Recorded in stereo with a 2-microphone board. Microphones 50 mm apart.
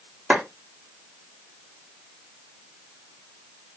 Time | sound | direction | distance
0.3 | a clap | 15° right (ahead or behind) | 1.0 m